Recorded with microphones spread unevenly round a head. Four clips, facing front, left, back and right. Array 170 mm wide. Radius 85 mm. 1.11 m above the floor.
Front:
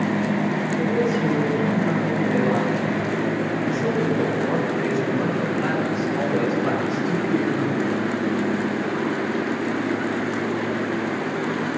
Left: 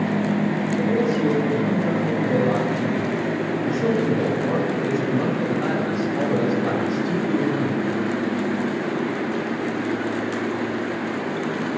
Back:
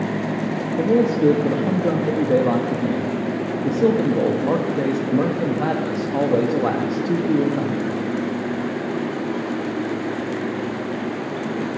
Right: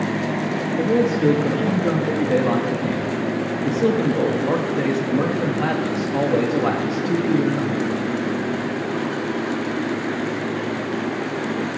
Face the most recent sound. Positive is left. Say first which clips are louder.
# right 4 dB, back 6 dB
turn(degrees=-155)